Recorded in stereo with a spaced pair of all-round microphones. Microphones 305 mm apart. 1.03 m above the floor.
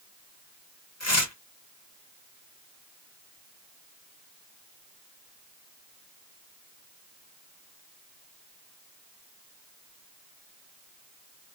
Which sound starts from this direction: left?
Tearing paper, at 1.0 s.